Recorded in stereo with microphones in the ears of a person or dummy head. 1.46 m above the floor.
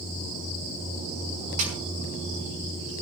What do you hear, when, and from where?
1.6 s a snare drum: 40° right (ahead or behind), 6 m